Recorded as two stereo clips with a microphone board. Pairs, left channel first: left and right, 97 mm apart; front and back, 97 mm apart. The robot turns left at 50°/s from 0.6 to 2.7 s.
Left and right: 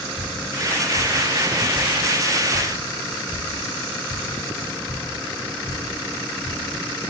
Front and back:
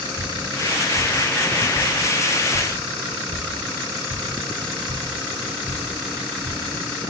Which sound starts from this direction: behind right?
Dripping, at 0.2 s.